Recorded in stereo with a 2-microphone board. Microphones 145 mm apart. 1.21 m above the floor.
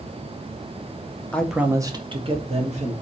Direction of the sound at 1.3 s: 10° left (ahead or behind).